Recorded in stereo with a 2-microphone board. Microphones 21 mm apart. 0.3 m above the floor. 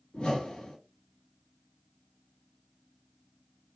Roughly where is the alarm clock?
No alarm clock in this recording.